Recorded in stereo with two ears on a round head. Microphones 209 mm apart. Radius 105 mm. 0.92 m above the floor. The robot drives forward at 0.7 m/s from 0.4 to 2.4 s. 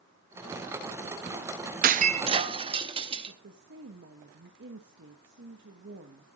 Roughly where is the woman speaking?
Right.